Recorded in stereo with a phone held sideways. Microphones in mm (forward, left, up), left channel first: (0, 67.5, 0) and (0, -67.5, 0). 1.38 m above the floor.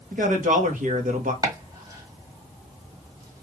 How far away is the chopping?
About 1.2 m.